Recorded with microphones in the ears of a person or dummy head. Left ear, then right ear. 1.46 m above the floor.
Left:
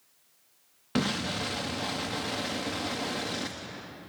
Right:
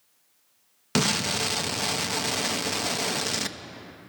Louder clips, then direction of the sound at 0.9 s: Right 6 dB; 70° right (ahead or behind).